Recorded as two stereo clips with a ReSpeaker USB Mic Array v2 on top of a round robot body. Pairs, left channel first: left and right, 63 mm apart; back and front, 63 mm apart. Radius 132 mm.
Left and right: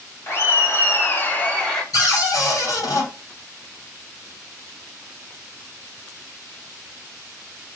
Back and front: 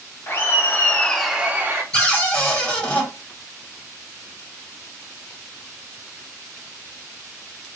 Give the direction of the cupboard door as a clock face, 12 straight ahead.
8 o'clock.